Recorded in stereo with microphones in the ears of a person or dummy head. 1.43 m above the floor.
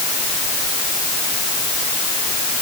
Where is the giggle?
No giggle in this recording.